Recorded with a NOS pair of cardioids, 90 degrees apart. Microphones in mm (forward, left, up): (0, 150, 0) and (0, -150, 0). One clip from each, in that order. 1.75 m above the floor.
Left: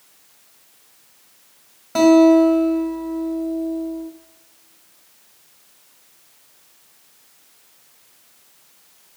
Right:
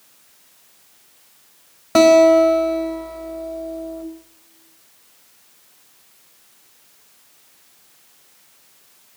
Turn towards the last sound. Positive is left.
turn(degrees=-45)